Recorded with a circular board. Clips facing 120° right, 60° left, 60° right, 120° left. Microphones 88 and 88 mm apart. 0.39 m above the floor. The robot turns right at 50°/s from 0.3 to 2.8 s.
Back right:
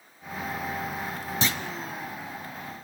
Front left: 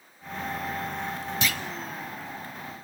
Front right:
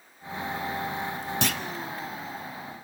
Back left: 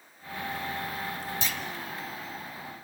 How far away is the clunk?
About 0.8 m.